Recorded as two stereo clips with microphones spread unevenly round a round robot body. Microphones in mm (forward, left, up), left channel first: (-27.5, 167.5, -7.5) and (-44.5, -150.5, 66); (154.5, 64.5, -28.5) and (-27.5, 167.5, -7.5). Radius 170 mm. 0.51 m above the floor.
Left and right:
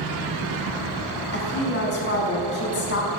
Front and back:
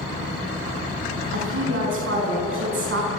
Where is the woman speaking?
140° left, 5.5 m.